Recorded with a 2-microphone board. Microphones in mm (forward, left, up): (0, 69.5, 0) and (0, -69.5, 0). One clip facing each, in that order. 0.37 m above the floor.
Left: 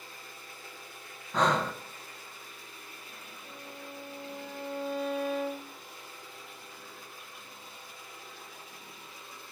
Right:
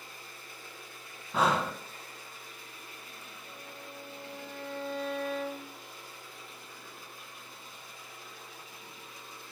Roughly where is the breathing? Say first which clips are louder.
Left 1 dB; centre.